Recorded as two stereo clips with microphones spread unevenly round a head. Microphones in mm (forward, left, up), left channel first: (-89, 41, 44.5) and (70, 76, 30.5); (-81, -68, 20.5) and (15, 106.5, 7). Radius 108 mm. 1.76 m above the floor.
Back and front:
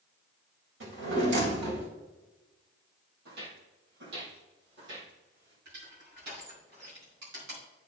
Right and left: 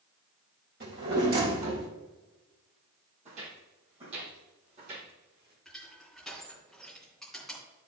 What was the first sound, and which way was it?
A drawer, 10° left.